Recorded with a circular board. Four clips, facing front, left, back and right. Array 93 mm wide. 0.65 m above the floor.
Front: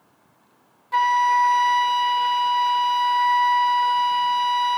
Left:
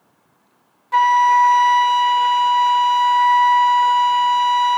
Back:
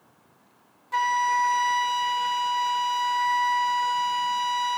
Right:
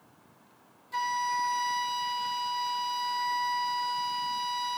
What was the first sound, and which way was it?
A flute, 80° left.